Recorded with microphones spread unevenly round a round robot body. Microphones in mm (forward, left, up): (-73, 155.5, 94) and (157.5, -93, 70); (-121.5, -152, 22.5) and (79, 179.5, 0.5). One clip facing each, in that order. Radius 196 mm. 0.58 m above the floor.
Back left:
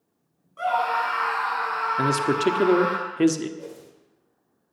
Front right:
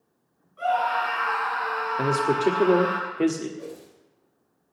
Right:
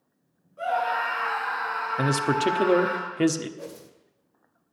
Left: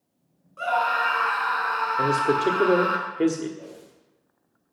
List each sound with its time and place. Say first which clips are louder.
0.6 s a scream: even, even; 110° left, 6.5 m
2.0 s a man speaking: even, left 2 dB; 170° right, 1.3 m
3.6 s a whoosh: front right 1 dB, right 2 dB; 140° right, 2.5 m